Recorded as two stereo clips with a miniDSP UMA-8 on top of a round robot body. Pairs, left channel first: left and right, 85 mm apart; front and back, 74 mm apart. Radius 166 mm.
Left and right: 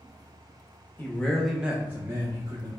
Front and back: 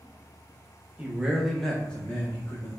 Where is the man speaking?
130° left, 0.9 m; by 2.7 s 60° right, 1.2 m.